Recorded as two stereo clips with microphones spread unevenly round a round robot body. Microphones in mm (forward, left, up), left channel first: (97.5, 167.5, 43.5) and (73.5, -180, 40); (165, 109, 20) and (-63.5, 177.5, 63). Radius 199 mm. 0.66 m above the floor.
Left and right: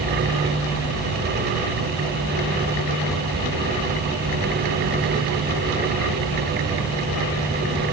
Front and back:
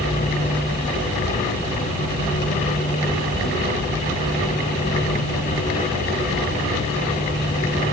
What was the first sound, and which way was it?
Only background noise.